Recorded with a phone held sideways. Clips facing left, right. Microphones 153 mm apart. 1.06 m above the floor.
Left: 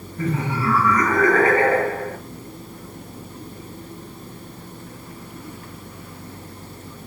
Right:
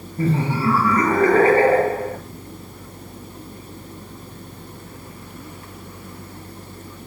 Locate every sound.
0.2 s laughter: 30° right (ahead or behind), 1.8 m